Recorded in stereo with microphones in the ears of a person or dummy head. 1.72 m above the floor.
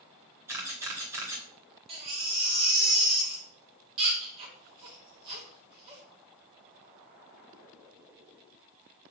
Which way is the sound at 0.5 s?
15° right (ahead or behind).